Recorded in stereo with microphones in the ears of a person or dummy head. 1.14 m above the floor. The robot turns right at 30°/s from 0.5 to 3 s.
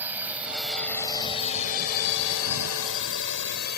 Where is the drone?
15° right (ahead or behind); by 3.8 s 55° left (ahead or behind).